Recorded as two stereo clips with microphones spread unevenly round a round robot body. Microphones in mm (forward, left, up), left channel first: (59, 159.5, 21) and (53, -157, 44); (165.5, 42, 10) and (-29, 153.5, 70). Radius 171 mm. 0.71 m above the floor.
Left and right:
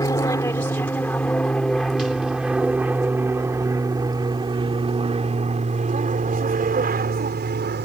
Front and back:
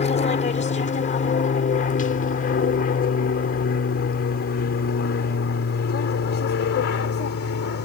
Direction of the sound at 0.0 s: 10° left.